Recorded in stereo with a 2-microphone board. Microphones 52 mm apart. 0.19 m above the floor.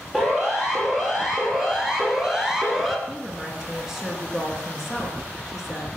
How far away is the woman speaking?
About 2.5 m.